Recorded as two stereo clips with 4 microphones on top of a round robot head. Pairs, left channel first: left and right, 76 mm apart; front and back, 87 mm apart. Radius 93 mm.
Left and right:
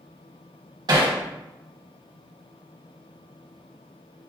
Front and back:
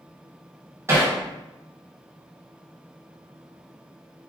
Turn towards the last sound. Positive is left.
turn(degrees=-115)